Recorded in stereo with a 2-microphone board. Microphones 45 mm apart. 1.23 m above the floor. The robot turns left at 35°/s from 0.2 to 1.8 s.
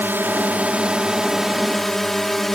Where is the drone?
130° right; by 2.6 s 175° left.